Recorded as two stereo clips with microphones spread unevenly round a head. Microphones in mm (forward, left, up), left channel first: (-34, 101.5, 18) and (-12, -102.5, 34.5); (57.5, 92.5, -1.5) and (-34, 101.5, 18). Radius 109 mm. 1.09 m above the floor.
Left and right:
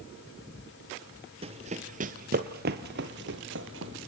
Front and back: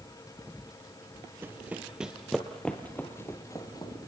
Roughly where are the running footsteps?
Behind right.